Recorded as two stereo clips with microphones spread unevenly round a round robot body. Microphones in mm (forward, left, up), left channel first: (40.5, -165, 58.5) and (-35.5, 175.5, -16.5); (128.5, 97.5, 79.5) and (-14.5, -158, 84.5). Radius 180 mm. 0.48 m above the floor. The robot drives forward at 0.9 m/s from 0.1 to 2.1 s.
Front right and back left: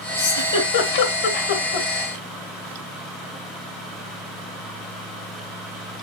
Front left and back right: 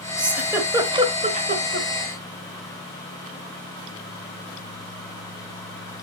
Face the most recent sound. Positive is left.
turn(degrees=-85)